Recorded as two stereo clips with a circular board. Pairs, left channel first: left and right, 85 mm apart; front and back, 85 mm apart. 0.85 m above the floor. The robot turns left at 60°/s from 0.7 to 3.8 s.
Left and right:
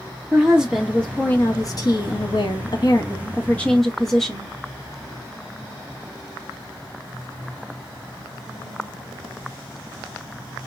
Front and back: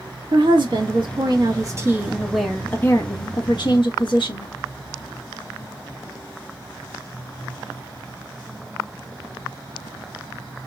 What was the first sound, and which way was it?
A woman speaking, 170° right.